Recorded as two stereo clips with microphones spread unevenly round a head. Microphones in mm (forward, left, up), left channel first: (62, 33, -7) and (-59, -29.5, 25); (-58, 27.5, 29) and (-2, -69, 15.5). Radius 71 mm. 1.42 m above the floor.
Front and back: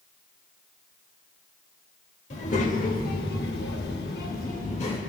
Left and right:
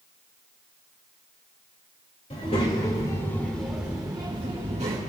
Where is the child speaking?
70° left, 2.5 m; by 5.0 s 20° right, 2.0 m.